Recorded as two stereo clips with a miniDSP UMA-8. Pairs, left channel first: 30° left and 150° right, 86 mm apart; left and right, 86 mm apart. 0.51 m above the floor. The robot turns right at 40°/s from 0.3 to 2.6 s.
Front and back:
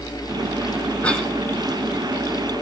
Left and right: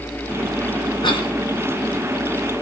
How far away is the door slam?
No door slam in this recording.